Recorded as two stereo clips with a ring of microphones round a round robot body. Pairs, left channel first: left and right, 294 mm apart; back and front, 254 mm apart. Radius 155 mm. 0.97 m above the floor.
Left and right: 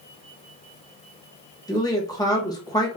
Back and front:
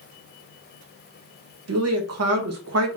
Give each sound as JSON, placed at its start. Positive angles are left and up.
{"t": 1.7, "sound": "a woman speaking", "azimuth_deg": 15, "distance_m": 1.1}